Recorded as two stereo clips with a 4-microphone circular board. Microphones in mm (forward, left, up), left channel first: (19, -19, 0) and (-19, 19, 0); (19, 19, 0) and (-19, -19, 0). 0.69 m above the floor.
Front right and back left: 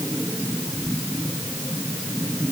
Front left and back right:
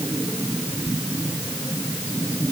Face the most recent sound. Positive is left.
No sound to turn to.